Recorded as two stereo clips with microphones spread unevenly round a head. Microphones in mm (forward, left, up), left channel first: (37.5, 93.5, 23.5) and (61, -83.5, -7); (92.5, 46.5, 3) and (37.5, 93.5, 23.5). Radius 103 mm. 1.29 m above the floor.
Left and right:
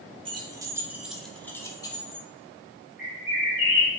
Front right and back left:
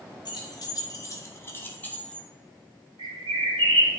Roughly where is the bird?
Behind.